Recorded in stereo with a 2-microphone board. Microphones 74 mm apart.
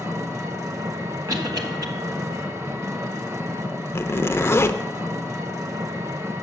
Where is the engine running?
40° right (ahead or behind), 0.9 m.